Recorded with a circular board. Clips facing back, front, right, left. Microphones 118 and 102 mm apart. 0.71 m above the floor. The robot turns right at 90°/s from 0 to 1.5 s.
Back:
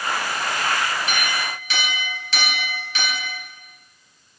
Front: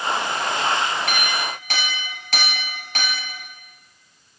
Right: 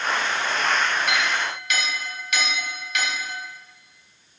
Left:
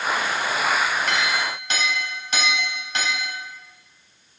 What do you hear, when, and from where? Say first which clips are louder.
1.1 s a clink: front 1 dB, left 1 dB; 5° right, 3 m; by 3.3 s 35° left, 3 m